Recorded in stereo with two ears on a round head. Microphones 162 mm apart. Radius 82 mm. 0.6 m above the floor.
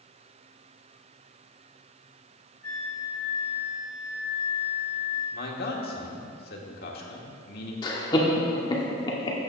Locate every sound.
2.6 s a flute: 10° left (ahead or behind), 3 m
5.3 s a man speaking: 55° left (ahead or behind), 1.6 m
7.8 s laughter: 25° left (ahead or behind), 1.1 m